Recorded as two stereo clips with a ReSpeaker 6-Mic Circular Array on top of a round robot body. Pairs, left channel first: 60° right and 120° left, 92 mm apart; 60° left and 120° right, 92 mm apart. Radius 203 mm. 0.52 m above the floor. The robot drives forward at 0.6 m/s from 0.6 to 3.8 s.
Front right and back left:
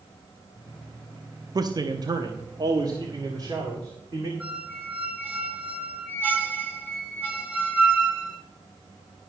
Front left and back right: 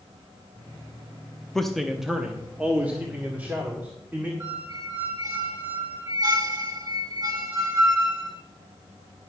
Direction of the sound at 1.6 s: 145° left.